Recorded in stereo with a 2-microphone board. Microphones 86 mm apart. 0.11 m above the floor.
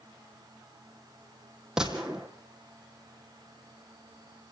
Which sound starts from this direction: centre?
A gunshot, at 1.8 s.